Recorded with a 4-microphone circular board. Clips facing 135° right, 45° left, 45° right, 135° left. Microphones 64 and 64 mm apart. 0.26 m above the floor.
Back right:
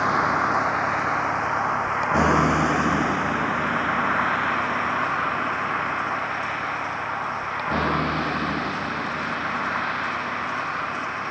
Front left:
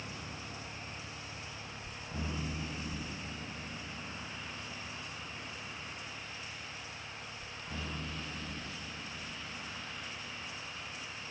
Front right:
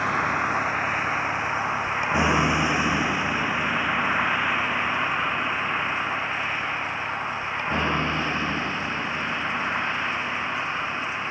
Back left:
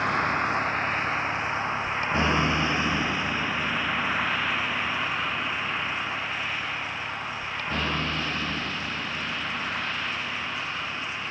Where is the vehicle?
130° right; by 11.3 s 110° right.